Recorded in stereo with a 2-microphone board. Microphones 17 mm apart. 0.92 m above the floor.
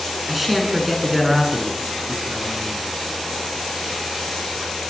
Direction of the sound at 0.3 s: 5° right (ahead or behind).